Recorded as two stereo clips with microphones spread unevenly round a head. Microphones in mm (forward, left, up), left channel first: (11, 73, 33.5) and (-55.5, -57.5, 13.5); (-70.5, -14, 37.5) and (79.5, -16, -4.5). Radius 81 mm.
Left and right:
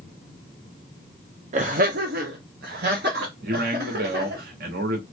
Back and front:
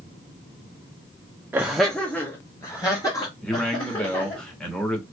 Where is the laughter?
75° right, 0.5 m; by 4.4 s 120° right, 2 m.